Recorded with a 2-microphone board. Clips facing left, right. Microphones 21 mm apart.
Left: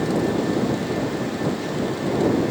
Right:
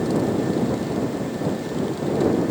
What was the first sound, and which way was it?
Only background noise.